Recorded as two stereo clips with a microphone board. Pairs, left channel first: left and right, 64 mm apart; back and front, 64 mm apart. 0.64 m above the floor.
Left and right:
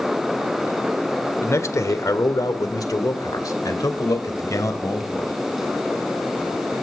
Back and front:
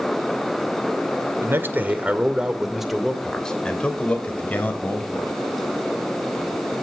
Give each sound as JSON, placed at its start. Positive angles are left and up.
{"t": 1.4, "sound": "a man speaking", "azimuth_deg": 50, "distance_m": 2.0}